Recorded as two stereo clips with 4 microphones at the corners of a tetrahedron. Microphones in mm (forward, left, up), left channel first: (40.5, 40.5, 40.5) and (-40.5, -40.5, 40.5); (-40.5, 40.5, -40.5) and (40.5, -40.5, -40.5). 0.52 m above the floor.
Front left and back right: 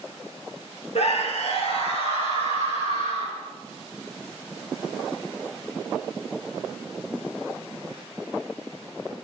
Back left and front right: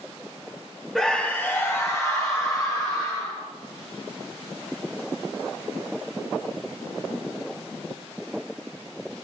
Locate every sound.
0.9 s a scream: 50° left, 1.2 m; by 3.4 s 80° left, 4.5 m